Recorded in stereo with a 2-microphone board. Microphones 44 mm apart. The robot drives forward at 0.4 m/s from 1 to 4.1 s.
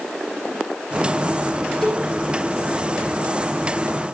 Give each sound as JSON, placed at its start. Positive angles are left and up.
{"t": 1.8, "sound": "a cowbell", "side_deg": 10, "distance_m": 4.0}